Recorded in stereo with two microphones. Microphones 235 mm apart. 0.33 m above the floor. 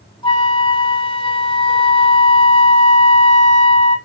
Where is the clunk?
I don't hear a clunk.